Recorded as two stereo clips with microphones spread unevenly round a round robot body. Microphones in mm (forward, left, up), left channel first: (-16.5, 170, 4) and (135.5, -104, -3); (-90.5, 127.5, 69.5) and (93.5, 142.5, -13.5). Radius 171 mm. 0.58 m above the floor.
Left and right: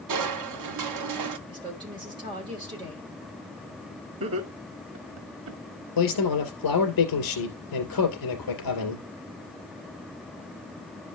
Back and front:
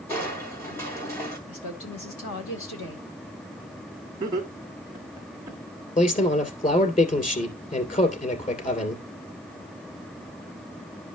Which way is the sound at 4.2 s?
35° right.